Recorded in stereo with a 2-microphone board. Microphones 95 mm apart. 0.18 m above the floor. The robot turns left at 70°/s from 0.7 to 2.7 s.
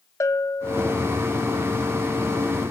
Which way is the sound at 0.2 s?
30° left (ahead or behind).